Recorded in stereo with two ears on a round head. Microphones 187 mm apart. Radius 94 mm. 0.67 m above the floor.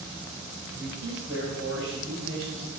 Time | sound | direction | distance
0.7 | a man speaking | 45° right (ahead or behind) | 3 m